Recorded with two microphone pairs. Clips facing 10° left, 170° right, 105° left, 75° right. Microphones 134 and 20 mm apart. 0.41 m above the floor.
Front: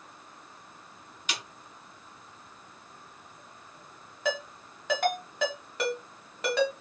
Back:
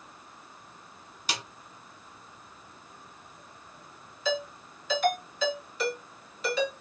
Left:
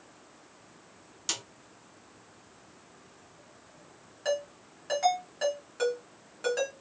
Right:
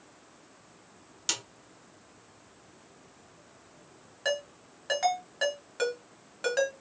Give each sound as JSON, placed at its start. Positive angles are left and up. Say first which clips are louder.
{"t": 1.3, "sound": "a snare drum", "louder": "back 2 dB, right 2 dB", "azimuth_deg": -135, "distance_m": 0.9}
{"t": 4.2, "sound": "a ringtone", "louder": "back 1 dB, even", "azimuth_deg": -10, "distance_m": 2.0}